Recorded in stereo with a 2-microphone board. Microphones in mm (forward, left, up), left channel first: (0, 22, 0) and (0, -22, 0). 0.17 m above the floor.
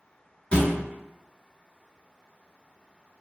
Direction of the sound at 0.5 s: 25° left (ahead or behind).